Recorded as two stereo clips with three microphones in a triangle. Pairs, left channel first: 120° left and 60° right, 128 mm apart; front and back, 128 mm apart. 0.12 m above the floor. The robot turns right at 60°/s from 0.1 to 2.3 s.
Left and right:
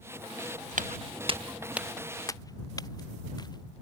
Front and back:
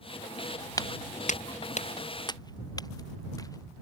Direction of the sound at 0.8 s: 60° right.